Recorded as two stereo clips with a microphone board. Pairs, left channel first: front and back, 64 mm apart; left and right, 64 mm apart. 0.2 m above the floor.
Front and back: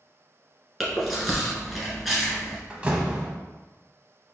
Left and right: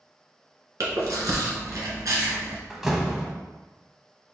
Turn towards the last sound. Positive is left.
turn(degrees=-165)